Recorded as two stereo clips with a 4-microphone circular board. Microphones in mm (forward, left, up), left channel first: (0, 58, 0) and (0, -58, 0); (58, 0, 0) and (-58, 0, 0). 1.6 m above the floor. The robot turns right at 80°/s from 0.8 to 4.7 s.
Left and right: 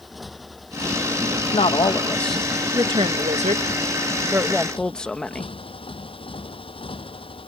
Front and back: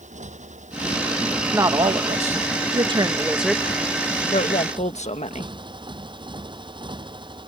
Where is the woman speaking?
110° left; by 5.5 s 5° left.